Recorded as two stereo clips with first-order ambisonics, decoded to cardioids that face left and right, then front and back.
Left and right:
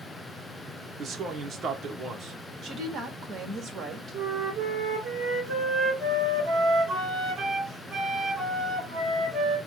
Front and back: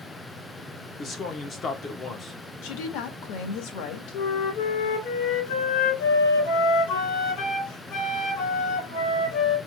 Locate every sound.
1.0 s a man speaking: 45° right, 0.8 m
2.6 s a woman speaking: 25° right, 1.6 m
4.1 s a flute: 20° right, 1.9 m